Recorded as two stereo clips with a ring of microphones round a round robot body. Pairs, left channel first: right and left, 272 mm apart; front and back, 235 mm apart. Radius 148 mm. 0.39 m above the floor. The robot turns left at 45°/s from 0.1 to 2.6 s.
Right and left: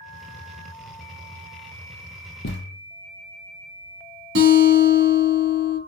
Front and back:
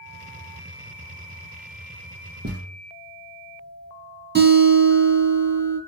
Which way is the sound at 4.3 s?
135° left.